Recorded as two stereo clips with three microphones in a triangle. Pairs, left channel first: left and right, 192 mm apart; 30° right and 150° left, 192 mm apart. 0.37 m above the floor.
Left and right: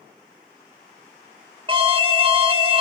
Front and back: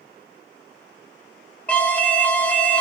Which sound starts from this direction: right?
An alarm, at 1.7 s.